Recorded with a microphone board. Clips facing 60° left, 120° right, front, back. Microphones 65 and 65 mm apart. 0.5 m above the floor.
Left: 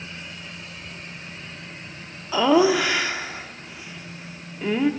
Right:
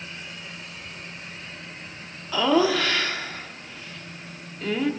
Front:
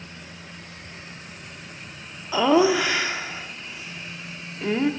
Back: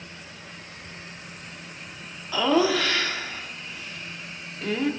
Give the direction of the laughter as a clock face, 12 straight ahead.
11 o'clock.